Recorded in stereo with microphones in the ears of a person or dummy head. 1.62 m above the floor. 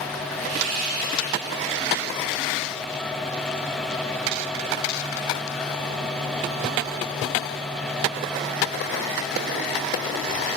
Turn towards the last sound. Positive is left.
turn(degrees=-85)